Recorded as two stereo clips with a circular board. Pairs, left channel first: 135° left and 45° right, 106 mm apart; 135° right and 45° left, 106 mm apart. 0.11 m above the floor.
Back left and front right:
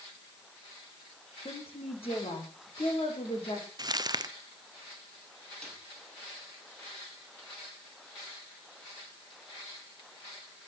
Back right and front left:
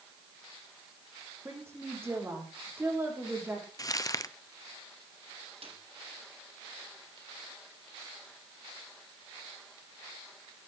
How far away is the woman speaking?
About 5.5 m.